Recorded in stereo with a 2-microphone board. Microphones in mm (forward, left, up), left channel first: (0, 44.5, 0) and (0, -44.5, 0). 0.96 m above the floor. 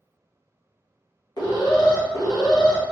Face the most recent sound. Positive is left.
turn(degrees=50)  # may be behind; listen again after turning